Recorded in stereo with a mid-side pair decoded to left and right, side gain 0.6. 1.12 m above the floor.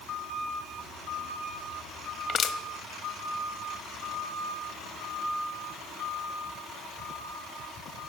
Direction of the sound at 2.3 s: 45° left.